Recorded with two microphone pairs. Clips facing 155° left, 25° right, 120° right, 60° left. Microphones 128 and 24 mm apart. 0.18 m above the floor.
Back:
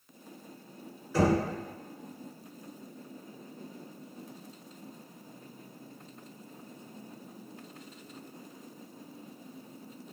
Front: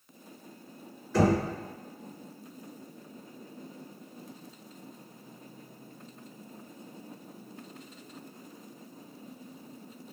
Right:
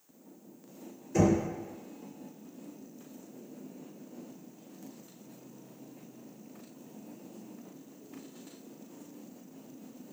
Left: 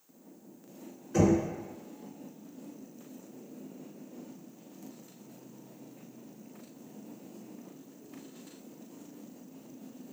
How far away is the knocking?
About 1.9 m.